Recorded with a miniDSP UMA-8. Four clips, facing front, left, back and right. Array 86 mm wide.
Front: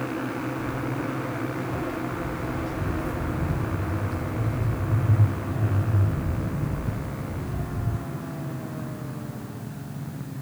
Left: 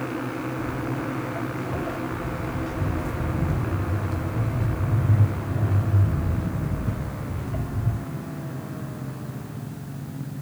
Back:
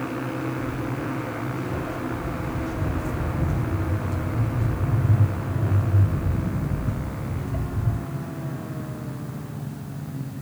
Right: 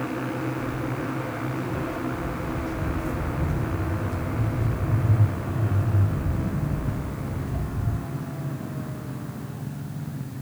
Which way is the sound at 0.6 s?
90° left.